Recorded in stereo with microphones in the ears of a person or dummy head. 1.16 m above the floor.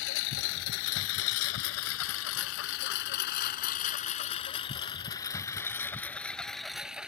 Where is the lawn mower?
70° left (ahead or behind); by 7.1 s 5° right (ahead or behind).